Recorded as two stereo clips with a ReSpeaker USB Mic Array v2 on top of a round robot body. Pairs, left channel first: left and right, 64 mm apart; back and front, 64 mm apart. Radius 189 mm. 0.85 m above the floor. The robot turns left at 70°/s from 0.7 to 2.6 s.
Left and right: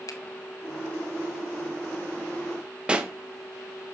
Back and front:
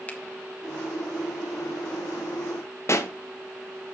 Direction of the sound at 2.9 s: 160° right.